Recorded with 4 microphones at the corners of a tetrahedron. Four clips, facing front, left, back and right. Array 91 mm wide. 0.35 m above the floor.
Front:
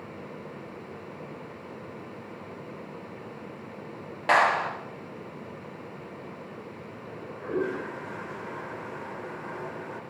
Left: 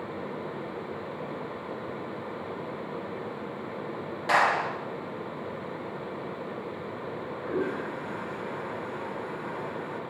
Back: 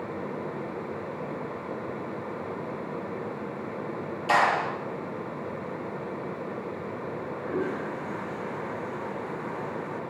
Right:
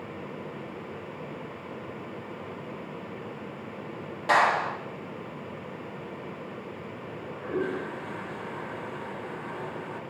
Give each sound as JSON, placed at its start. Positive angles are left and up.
{"t": 4.3, "sound": "a clap", "azimuth_deg": 0, "distance_m": 7.0}
{"t": 7.1, "sound": "a toilet flushing", "azimuth_deg": 20, "distance_m": 1.5}